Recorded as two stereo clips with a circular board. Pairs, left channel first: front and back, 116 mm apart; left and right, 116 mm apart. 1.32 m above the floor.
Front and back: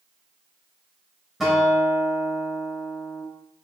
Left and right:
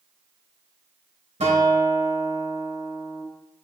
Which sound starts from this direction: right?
A guitar, at 1.4 s.